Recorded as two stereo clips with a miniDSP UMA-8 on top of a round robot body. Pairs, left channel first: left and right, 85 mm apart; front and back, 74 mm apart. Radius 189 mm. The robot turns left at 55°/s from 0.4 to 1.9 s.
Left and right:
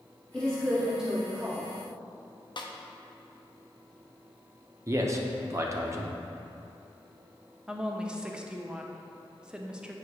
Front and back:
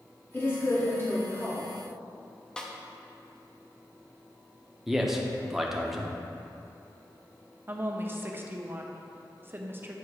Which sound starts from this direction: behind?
A woman speaking, at 7.7 s.